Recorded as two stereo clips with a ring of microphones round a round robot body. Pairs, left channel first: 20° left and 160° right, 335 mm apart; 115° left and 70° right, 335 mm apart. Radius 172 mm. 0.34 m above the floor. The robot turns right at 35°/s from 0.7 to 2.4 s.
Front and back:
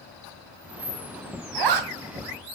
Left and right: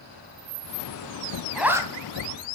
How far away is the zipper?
About 2 m.